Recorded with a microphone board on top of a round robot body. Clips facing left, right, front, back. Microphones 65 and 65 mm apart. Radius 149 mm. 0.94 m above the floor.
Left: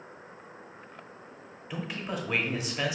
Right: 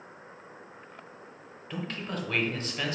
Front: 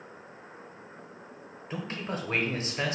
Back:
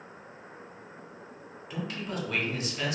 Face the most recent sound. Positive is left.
turn(degrees=20)